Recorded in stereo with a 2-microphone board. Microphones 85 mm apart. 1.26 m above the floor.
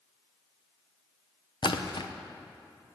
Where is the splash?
65° left (ahead or behind), 0.6 m.